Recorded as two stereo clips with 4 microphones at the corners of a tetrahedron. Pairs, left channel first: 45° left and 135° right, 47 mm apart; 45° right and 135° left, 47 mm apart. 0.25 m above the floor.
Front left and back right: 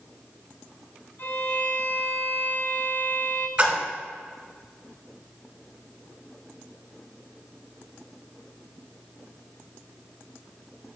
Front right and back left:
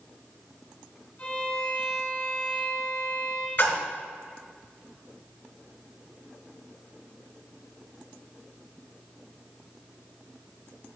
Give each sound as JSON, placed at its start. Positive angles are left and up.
{"t": 1.2, "sound": "a violin", "azimuth_deg": 10, "distance_m": 1.3}
{"t": 3.6, "sound": "a splash", "azimuth_deg": -75, "distance_m": 1.4}